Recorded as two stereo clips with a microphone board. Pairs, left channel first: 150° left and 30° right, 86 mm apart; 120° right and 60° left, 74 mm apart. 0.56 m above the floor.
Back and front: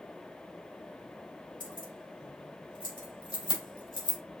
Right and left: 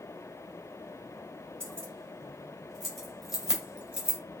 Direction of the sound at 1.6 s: 165° left.